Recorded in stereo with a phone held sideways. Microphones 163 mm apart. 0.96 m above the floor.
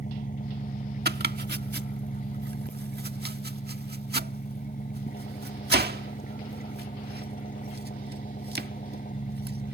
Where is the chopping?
85° right.